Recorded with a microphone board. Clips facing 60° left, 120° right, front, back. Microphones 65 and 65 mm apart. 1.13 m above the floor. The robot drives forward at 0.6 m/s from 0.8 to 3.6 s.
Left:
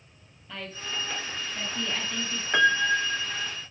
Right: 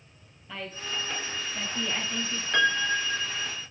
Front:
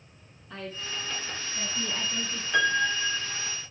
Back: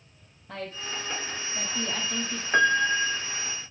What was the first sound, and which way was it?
A woman speaking, 155° left.